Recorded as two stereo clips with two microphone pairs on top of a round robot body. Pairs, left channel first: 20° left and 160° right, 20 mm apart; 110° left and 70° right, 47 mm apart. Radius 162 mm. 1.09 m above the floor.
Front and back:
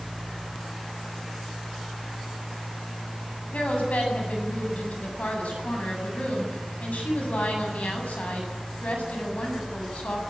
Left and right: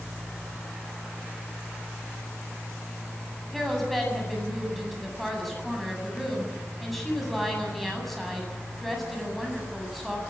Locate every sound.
3.5 s a woman speaking: 20° left, 8 m